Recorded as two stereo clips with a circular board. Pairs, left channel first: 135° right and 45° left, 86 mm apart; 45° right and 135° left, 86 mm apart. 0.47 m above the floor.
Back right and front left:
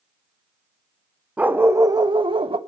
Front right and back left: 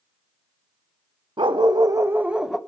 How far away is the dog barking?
About 1.0 m.